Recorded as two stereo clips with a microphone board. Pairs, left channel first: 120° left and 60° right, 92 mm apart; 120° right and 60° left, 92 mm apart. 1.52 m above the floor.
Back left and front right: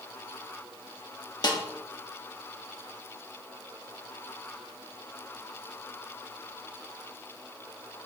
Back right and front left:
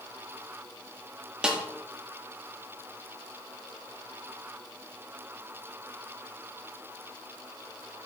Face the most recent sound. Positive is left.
turn(degrees=140)